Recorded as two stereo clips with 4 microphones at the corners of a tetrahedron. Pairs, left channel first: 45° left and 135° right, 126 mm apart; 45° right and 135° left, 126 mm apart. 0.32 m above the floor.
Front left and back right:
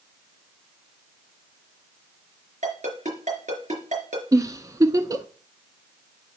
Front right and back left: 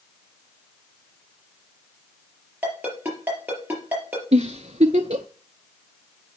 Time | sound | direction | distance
2.6 | a ringtone | 150° right | 4 m
4.3 | a giggle | 165° left | 0.7 m